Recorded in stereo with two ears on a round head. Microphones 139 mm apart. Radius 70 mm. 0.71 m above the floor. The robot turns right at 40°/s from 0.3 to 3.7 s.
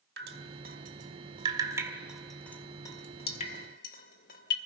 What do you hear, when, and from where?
0.2 s dripping: 70° right (ahead or behind), 1.7 m; by 4.6 s 55° left (ahead or behind), 1.7 m